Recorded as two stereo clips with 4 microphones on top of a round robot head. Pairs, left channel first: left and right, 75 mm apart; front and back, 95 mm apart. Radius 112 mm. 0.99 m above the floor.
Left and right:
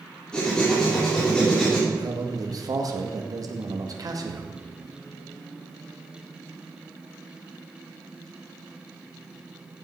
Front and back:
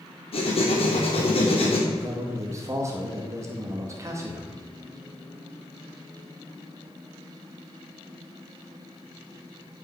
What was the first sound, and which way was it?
Writing, 10° left.